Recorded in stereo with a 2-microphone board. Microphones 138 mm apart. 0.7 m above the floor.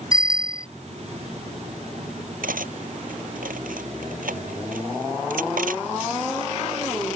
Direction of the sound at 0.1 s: 25° left (ahead or behind).